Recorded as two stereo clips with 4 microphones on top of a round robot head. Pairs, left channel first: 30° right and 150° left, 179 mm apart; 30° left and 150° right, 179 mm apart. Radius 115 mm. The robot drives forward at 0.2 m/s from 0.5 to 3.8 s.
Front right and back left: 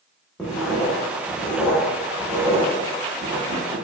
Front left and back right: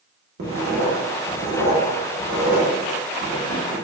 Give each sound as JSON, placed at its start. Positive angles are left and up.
{"t": 0.4, "sound": "writing", "azimuth_deg": -120, "distance_m": 0.8}